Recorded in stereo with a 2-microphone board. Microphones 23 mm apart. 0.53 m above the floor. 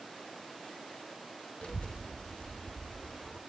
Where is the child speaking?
70° left (ahead or behind), 0.9 m; by 3.4 s 30° left (ahead or behind), 3 m.